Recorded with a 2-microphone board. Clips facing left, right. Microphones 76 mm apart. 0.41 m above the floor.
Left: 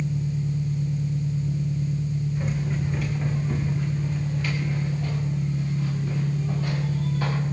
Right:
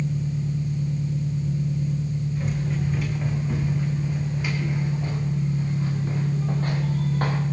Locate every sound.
0.0 s an engine running: 60° right (ahead or behind), 7 m
2.4 s running footsteps: 5° left (ahead or behind), 5.5 m; by 7.4 s 50° right (ahead or behind), 4.5 m